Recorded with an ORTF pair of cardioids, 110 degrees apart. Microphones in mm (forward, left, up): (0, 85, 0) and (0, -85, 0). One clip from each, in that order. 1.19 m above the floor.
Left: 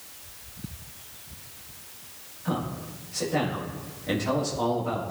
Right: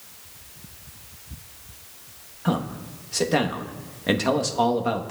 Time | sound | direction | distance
2.5 | a man speaking | 65° right | 1.2 m